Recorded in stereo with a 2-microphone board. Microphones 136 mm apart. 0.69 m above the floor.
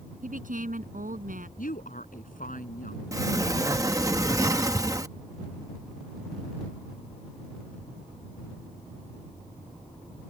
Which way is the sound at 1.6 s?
85° left.